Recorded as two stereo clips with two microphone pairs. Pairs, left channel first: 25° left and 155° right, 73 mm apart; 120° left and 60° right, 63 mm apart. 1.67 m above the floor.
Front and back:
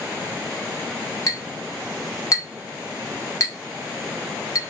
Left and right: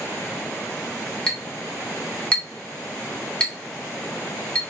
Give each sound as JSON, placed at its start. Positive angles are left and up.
{"t": 1.3, "sound": "a clink", "azimuth_deg": 50, "distance_m": 1.2}